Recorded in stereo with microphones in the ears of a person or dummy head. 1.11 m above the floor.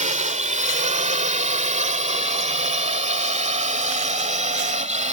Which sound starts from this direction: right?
A drone, at 0.0 s.